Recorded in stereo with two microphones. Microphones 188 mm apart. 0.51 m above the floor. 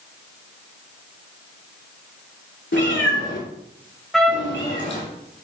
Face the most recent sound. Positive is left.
turn(degrees=0)  # may be behind; listen again after turning